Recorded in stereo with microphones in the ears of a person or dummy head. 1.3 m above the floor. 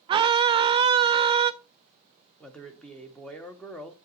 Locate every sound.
0.1 s a scream: 30° right (ahead or behind), 0.6 m
2.4 s a man speaking: centre (ahead or behind), 1.3 m